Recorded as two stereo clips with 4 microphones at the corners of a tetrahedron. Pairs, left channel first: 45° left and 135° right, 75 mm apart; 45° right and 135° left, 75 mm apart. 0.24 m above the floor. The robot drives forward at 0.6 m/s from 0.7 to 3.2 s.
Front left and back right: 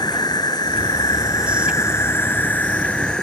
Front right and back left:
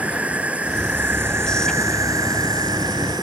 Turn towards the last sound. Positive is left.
turn(degrees=125)